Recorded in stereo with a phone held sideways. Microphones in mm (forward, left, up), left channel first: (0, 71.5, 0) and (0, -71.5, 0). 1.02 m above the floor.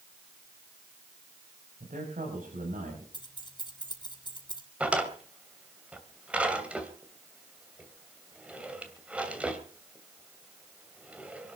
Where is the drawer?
10° right (ahead or behind), 2.5 m.